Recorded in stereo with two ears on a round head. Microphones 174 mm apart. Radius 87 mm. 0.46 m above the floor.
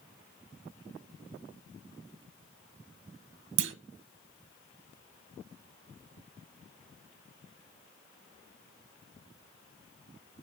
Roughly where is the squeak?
No squeak in this recording.